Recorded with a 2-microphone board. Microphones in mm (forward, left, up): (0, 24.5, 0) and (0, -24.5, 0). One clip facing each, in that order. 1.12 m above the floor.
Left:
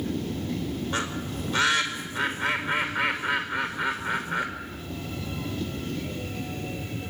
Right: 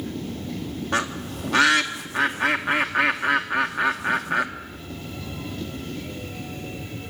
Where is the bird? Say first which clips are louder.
Right 4 dB; 80° right, 1.9 m.